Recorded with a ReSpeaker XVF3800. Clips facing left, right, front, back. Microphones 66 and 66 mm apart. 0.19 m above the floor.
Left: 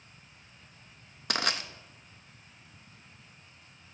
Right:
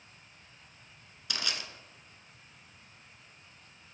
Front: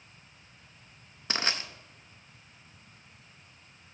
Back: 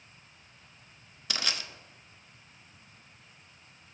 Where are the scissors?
I don't hear scissors.